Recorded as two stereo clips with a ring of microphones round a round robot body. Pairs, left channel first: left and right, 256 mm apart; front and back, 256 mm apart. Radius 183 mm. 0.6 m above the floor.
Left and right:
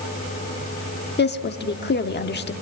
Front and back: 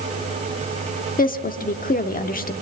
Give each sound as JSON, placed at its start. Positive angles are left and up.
{"t": 1.2, "sound": "a woman speaking", "azimuth_deg": 50, "distance_m": 1.2}